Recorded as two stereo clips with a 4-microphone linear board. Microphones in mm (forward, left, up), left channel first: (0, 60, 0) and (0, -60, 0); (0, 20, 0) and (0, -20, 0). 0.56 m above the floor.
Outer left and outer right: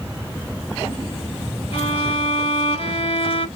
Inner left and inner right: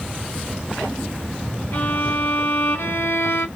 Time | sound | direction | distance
1.7 | a violin | 55° left (ahead or behind) | 2 m